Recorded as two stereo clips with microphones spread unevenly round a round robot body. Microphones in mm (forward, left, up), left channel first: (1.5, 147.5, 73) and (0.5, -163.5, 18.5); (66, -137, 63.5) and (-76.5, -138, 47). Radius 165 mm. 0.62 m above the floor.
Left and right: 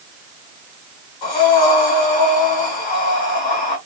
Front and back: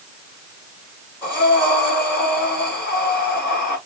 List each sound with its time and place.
1.2 s breathing: 70° left, 4 m